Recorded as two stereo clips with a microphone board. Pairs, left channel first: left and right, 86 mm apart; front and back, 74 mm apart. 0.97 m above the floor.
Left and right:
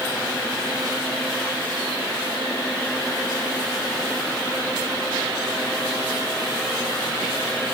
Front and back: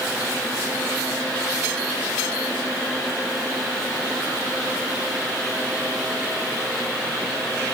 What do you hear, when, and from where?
Only background noise.